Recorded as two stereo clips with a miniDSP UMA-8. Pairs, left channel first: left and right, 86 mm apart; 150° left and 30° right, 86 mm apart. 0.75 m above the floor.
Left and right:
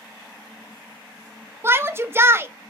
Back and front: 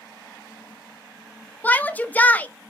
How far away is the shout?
About 0.6 m.